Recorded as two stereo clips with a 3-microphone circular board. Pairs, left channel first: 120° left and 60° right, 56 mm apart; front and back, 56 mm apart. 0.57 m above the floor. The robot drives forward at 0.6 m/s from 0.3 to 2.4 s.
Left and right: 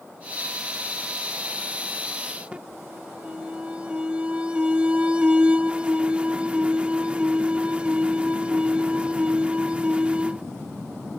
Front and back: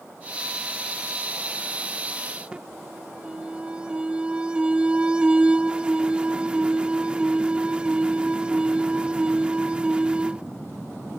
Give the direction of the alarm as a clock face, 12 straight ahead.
4 o'clock.